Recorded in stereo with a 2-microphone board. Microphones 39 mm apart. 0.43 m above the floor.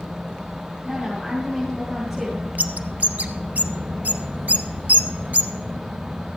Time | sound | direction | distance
0.8 | a woman speaking | 5° right (ahead or behind) | 4 m
2.6 | a bird | 50° right (ahead or behind) | 0.9 m